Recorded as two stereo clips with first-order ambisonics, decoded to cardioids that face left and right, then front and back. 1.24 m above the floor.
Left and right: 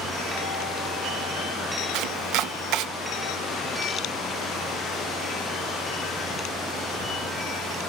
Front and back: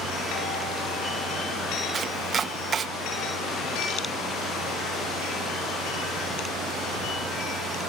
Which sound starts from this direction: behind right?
Chopping, at 1.9 s.